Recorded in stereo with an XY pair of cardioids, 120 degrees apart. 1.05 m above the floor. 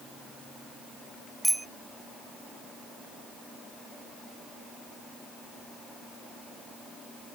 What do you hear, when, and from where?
1.4 s a bicycle bell: 10° right